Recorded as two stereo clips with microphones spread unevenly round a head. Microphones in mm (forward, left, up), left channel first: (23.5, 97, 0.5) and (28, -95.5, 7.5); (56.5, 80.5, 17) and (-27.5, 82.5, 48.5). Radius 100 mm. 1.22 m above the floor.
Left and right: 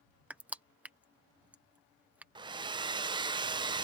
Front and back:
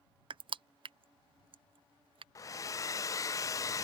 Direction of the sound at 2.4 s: 25° right.